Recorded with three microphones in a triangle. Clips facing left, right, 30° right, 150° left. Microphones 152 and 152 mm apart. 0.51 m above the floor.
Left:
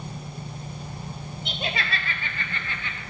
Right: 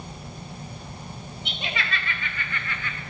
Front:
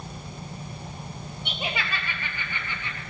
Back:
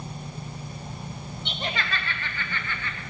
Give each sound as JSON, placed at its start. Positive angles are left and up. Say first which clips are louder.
{"t": 1.4, "sound": "laughter", "louder": "left 2 dB, even", "azimuth_deg": 50, "distance_m": 2.0}